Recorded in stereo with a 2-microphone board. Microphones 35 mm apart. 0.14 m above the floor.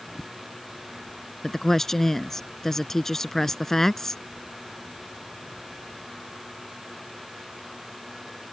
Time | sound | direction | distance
1.4 | a woman speaking | 10° left (ahead or behind) | ?